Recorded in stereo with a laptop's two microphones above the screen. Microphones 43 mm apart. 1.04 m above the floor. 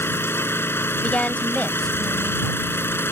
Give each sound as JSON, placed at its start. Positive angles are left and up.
{"t": 0.0, "sound": "an engine running", "side_deg": 60}
{"t": 1.0, "sound": "a woman speaking", "side_deg": 30}